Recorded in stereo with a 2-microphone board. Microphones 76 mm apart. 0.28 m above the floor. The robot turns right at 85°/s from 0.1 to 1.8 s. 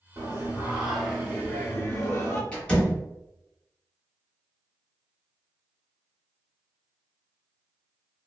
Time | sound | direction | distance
0.2 | singing | 80° right | 1.0 m
2.5 | a door slam | 15° left (ahead or behind) | 1.2 m